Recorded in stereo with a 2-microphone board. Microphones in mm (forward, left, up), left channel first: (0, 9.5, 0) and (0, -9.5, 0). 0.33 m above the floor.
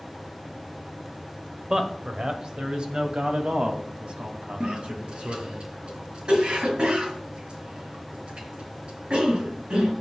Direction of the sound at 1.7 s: 25° right (ahead or behind).